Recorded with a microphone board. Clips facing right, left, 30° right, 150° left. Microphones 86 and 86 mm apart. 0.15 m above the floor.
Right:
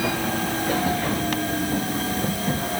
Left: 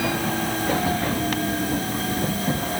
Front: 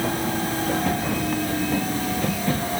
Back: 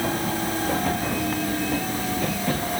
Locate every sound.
Only background noise.